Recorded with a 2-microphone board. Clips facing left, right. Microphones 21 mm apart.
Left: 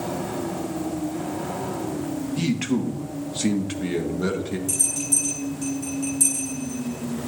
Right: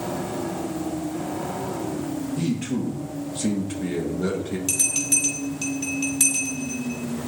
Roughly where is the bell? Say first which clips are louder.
Right 4 dB; right.